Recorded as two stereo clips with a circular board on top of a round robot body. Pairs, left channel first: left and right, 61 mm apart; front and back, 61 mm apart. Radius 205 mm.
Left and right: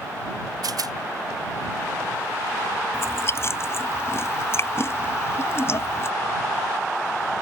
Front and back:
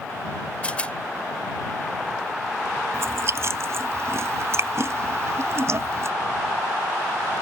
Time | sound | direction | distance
0.6 | a rattle | 70° right | ?
2.9 | chewing | 135° left | ?